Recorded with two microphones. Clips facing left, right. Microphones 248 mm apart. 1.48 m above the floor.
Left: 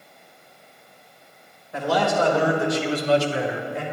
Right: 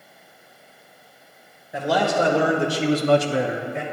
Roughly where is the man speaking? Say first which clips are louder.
Right 1 dB; centre.